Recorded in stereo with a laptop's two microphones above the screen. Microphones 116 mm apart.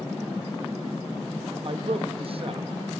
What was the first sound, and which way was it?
A man speaking, 55° right (ahead or behind).